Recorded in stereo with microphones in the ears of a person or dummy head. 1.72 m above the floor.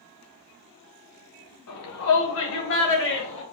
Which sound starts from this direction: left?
A shout, at 1.7 s.